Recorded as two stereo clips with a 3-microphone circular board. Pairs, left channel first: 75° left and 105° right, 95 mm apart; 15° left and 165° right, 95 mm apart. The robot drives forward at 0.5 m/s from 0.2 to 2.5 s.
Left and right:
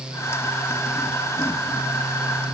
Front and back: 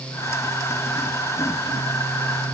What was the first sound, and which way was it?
Only background noise.